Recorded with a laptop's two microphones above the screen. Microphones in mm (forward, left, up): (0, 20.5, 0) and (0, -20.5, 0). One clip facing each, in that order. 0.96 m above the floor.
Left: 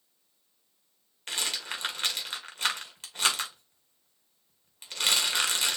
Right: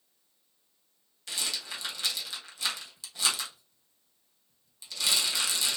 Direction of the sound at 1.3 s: 40° left (ahead or behind).